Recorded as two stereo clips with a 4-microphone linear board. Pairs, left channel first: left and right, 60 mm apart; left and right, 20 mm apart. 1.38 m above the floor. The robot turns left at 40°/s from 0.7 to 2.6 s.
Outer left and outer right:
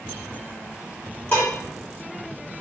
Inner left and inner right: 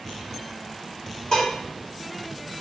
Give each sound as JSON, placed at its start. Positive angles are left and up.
{"t": 1.3, "sound": "dishes clattering", "side_deg": 30, "distance_m": 2.0}